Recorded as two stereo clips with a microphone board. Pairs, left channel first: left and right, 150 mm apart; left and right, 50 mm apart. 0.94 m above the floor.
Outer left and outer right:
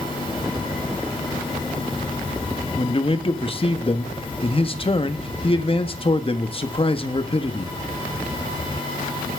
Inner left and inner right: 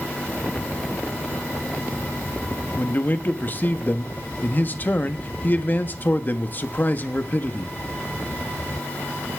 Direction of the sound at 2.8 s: 35° left (ahead or behind).